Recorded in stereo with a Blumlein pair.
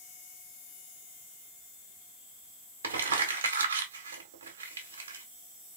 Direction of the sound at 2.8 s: 65° right.